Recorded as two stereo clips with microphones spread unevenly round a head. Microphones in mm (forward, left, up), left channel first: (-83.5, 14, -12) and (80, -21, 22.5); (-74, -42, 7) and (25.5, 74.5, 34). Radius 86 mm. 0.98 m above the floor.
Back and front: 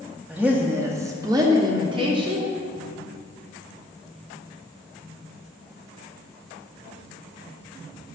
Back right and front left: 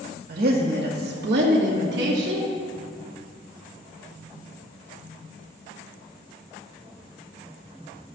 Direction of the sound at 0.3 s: 80° left.